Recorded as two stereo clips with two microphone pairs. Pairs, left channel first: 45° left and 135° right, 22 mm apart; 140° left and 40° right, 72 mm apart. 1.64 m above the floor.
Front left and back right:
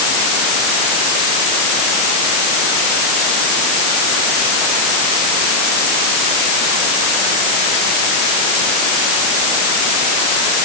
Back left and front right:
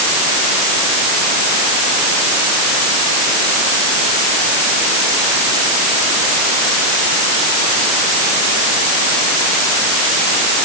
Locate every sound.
Only background noise.